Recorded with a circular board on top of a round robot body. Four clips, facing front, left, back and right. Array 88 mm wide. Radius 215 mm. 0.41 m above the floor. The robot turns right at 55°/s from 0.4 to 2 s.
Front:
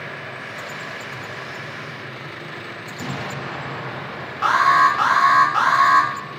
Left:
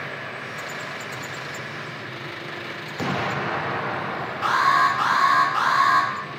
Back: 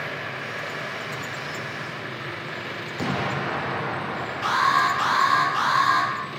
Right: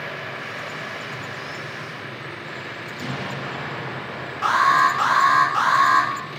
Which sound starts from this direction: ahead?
An alarm, at 4.4 s.